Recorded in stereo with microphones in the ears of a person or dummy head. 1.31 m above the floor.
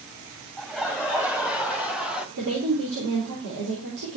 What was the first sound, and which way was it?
Laughter, centre (ahead or behind).